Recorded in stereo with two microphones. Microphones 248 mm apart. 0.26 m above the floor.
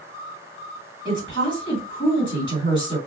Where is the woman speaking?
20° left (ahead or behind), 1.8 m.